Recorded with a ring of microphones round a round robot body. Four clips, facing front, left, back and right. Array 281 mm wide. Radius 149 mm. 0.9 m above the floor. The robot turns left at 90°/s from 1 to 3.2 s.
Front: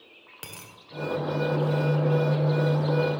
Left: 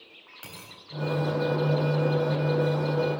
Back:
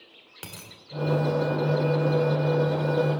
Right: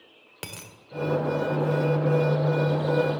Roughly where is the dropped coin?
Right.